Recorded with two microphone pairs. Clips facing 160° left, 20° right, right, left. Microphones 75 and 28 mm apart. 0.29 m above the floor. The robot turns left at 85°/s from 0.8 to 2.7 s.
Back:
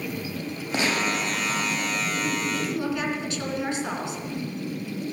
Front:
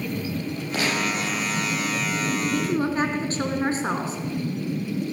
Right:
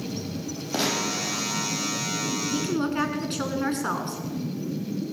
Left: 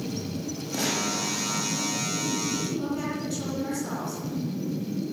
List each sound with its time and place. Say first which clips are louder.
0.7 s a gunshot: back 1 dB, right 2 dB; 140° right, 8 m; by 1.9 s 125° left, 8 m
2.5 s a woman speaking: front 4 dB, right 3 dB; 55° right, 4 m; by 4.2 s 70° right, 4 m